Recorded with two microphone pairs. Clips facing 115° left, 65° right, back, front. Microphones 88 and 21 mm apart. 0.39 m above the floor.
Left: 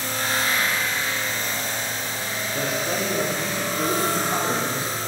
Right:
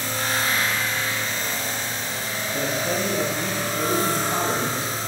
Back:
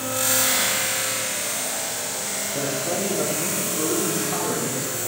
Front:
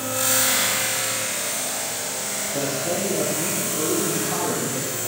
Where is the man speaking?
5° right, 7.5 m; by 5.0 s 10° left, 9.5 m.